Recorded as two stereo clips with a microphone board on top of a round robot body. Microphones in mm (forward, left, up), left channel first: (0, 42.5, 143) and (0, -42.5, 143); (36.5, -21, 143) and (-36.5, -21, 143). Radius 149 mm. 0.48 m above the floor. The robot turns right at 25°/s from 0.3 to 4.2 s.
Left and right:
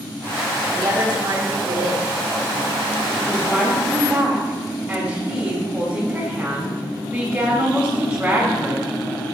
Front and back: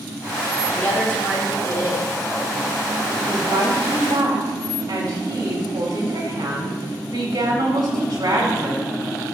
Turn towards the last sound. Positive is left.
turn(degrees=-165)